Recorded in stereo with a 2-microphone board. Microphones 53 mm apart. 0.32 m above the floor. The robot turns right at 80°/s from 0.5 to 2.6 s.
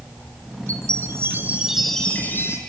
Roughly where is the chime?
Right.